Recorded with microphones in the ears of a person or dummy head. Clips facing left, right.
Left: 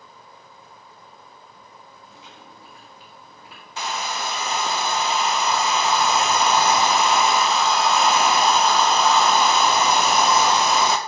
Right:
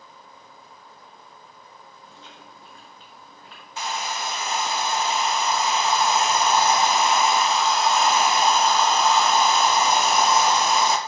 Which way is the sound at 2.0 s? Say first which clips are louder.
Even; 10° left (ahead or behind).